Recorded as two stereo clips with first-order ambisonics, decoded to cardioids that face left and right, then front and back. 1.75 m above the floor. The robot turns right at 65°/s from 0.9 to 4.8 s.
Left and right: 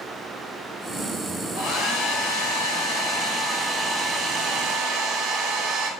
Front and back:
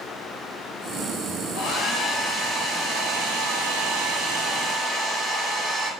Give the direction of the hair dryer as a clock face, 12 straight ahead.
11 o'clock.